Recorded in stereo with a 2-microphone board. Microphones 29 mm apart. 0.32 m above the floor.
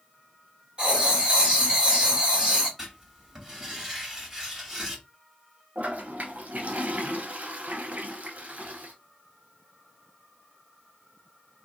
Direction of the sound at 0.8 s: 35° right (ahead or behind).